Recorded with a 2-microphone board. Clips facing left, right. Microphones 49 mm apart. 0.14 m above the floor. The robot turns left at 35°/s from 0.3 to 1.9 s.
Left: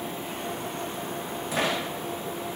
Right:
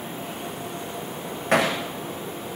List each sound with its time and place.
1.5 s hammering: 60° right (ahead or behind), 8.5 m; by 1.8 s 70° right (ahead or behind), 8.5 m